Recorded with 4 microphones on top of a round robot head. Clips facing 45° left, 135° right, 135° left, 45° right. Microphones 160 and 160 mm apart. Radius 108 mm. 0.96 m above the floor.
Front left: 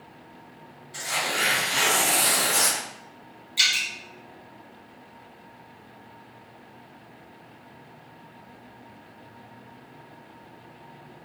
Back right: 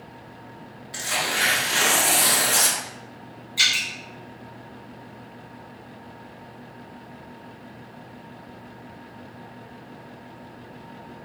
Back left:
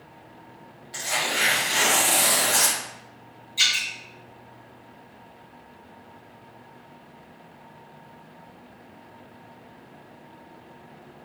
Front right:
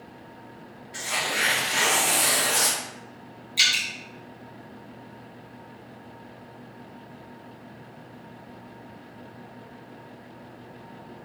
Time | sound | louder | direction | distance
0.9 | tearing paper | back right 1 dB, back left 2 dB | 165° right | 0.9 m
3.6 | dripping | back right 2 dB, front right 1 dB | 20° right | 1.7 m